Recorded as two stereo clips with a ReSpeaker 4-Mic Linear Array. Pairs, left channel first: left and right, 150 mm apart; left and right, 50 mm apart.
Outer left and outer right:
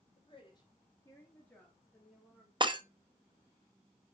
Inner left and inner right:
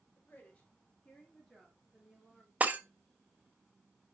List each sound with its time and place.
0.1 s a woman speaking: 40° left (ahead or behind), 2.5 m; by 2.5 s 5° right (ahead or behind), 3 m
2.6 s breaking glass: 30° right (ahead or behind), 0.7 m